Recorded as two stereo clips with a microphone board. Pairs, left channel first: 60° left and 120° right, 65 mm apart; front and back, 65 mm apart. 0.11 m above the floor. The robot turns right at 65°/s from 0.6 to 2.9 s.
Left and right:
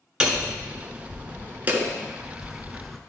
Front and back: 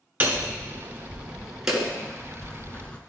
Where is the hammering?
175° right, 1.0 m; by 3.0 s 25° right, 1.0 m.